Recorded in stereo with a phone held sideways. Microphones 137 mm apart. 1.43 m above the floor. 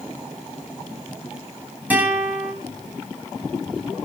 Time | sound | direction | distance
1.9 | a guitar | 10° right (ahead or behind) | 9.5 m